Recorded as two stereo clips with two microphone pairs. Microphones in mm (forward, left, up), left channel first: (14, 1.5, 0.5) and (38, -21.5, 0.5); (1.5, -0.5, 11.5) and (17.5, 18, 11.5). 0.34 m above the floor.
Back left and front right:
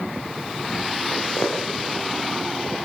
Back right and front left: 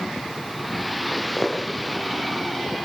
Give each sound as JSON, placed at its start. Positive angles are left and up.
{"t": 1.1, "sound": "footsteps", "azimuth_deg": 170, "distance_m": 9.0}